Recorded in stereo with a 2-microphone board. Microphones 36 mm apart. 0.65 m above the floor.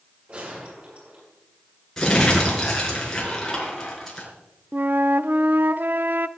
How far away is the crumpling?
About 5 m.